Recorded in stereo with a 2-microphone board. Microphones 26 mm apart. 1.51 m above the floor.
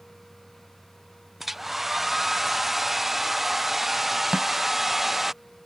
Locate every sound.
1.4 s a hair dryer: 5° right (ahead or behind)
4.3 s a snare drum: 50° right (ahead or behind)